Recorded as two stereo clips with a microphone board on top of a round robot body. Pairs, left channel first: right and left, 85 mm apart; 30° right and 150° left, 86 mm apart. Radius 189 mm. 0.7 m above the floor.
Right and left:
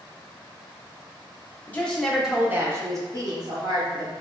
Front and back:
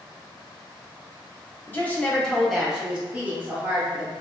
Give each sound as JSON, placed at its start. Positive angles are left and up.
{"t": 1.7, "sound": "a woman speaking", "azimuth_deg": -50, "distance_m": 1.1}